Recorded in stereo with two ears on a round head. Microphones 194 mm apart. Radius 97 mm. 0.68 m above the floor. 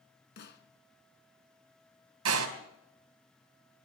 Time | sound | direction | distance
0.4 | a snare drum | 55° left (ahead or behind) | 1.9 m
2.2 | a door slam | 75° right (ahead or behind) | 3.5 m